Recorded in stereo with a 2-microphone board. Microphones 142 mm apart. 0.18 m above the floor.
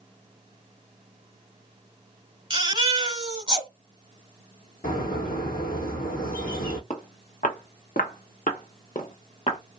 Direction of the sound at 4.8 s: 85° left.